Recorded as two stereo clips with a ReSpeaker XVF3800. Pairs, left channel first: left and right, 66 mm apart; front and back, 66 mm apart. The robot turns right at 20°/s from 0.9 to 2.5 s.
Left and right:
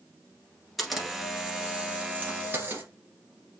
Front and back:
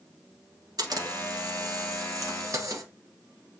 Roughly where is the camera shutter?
Behind.